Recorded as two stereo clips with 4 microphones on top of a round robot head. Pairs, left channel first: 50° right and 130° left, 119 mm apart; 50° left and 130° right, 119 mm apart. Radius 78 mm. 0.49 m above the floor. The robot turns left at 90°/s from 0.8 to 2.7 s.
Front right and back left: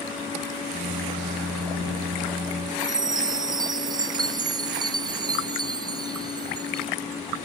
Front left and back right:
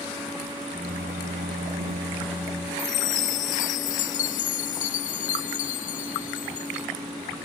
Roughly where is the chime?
Left.